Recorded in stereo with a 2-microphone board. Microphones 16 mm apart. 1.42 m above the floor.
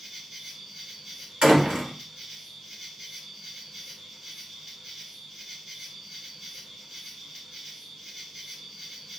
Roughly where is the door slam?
Right.